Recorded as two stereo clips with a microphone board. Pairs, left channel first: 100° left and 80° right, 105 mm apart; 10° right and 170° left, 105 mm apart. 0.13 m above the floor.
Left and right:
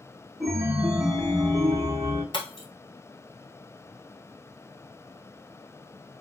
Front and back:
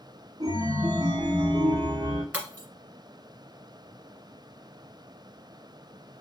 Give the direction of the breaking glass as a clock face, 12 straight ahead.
9 o'clock.